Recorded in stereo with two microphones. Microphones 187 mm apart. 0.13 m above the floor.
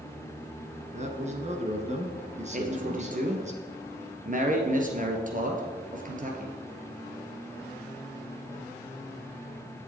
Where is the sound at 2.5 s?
45° right (ahead or behind), 2.5 m.